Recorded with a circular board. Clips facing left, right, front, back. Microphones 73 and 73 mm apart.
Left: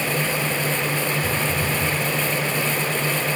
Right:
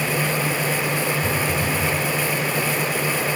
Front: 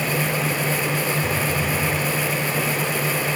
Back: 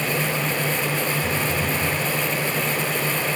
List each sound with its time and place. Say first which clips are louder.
1.2 s a phone buzzing: right 1 dB, front 1 dB; 105° right, 5 m